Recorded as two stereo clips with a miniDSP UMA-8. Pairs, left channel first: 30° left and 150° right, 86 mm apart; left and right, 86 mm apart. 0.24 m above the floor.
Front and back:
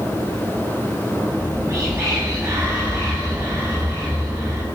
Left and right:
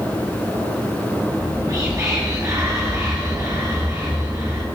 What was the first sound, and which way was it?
Whispering, 105° right.